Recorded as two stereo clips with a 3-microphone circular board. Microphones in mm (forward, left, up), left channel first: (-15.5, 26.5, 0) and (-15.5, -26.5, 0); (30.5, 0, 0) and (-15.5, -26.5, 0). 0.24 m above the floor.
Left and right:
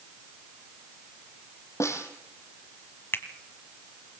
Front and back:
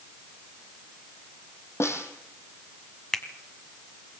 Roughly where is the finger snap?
Left.